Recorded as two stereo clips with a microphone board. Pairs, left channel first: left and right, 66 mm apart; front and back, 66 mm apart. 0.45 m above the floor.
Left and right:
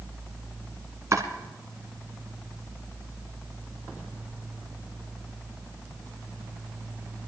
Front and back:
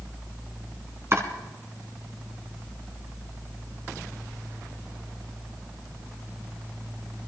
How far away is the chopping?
About 2.5 m.